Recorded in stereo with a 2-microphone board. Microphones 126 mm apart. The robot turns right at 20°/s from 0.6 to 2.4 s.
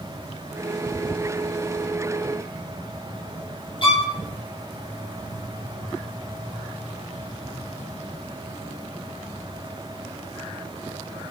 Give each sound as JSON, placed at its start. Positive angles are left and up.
{"t": 3.8, "sound": "a violin", "side_deg": 45, "distance_m": 5.5}